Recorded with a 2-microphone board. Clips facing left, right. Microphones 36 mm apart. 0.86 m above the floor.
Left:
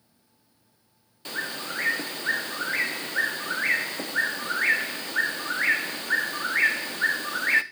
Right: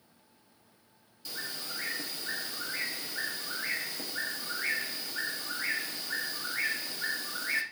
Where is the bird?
50° left (ahead or behind), 0.6 m.